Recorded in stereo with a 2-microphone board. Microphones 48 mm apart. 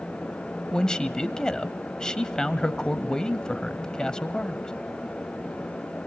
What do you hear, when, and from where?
0.7 s a man speaking: 15° left (ahead or behind), 1.0 m